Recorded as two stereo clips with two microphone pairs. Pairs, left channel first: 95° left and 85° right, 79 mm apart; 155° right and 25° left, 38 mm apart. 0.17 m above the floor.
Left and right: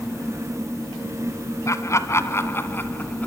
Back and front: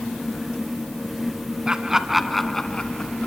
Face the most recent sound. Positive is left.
turn(degrees=155)